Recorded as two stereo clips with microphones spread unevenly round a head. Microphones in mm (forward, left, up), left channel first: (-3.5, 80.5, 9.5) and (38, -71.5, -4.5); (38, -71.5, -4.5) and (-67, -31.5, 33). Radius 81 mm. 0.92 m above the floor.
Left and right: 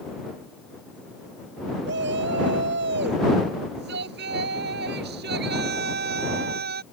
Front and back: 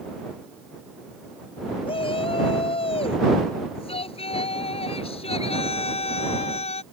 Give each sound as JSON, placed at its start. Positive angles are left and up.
{"t": 1.9, "sound": "a shout", "azimuth_deg": -60}